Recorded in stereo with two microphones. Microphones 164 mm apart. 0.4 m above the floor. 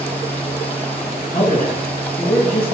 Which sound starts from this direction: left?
A man speaking, at 1.3 s.